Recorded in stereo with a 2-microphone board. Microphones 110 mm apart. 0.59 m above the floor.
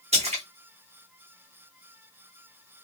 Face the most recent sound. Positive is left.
turn(degrees=-65)  # may be behind; listen again after turning